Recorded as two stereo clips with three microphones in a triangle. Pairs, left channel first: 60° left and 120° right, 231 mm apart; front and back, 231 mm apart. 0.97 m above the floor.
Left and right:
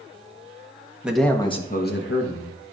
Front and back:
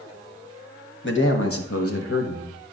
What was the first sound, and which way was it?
A man speaking, 35° right.